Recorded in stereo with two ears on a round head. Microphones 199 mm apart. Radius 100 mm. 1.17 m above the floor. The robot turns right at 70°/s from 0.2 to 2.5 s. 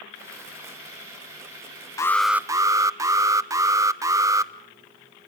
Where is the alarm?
160° left, 1.1 m; by 4.5 s 160° right, 1.1 m.